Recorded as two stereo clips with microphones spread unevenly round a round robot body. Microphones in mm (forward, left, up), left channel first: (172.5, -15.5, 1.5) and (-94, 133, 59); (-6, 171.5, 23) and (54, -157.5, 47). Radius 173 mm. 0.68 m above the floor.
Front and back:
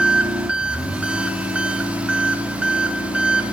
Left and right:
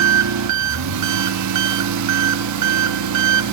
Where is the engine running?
115° right, 0.9 m.